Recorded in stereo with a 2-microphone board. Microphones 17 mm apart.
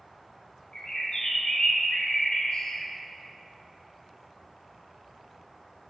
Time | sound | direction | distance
0.7 | a bird | 55° left (ahead or behind) | 2 m